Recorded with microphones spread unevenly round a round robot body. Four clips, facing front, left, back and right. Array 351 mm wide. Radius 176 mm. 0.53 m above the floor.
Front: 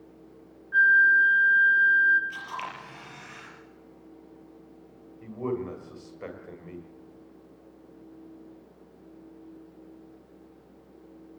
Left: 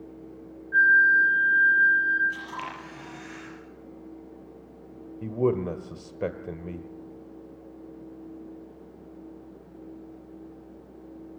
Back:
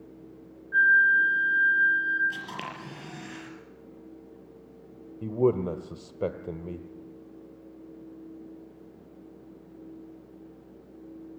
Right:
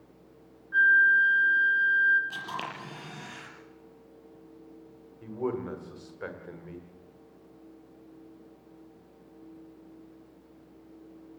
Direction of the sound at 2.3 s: 150° right.